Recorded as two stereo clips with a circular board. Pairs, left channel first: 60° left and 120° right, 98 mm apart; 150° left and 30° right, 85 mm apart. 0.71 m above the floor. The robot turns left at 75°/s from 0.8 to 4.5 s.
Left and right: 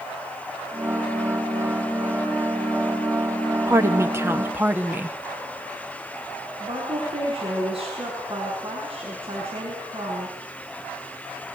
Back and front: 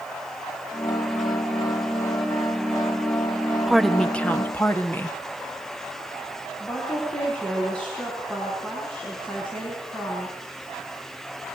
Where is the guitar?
No guitar in this recording.